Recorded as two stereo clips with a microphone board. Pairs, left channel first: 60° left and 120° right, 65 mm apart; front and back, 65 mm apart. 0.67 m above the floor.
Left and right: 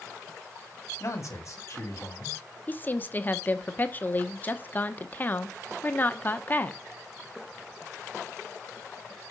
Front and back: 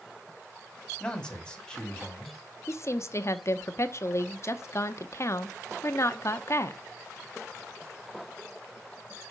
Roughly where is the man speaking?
Left.